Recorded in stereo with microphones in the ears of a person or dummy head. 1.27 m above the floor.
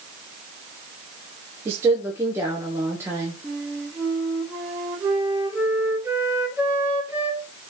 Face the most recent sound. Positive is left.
turn(degrees=-10)  # may be behind; listen again after turning